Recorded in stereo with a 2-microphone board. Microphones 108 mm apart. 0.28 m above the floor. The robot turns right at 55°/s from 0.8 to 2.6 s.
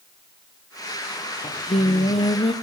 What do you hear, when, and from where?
1.4 s singing: 70° left, 1.3 m; by 2.5 s 130° left, 1.3 m